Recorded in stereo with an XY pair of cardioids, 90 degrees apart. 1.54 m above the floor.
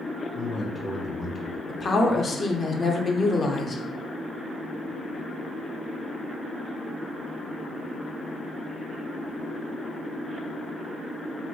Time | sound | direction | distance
0.3 | a man speaking | 45° left | 1.4 m
1.7 | a woman speaking | 40° left | 0.7 m